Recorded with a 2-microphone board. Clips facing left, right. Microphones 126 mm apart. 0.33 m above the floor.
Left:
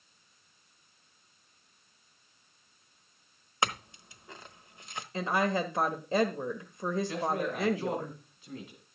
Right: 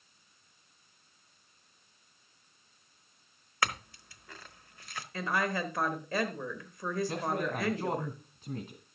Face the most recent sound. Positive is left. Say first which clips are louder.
# left 1 dB
turn(degrees=-45)  # may be behind; listen again after turning